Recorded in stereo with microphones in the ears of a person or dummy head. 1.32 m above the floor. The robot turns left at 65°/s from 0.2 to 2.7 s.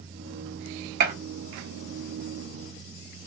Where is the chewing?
I don't hear chewing.